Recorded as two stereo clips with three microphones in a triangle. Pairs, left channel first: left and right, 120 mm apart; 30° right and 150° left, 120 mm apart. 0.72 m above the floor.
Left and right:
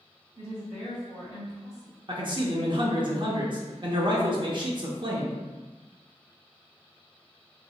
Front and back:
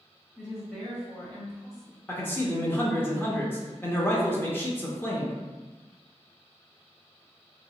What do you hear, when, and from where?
0.3 s a woman speaking: 75° left, 1.7 m; by 2.0 s 20° left, 1.2 m
2.1 s a man speaking: 95° right, 0.6 m